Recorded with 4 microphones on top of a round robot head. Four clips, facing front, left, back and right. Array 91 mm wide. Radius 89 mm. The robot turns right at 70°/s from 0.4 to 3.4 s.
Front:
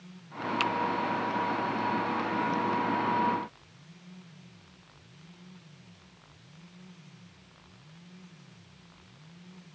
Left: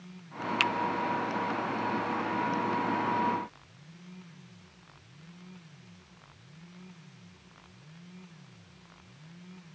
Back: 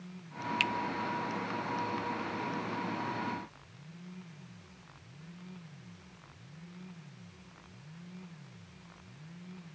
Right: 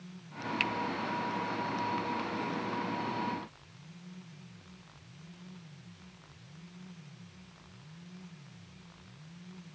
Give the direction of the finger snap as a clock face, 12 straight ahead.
9 o'clock.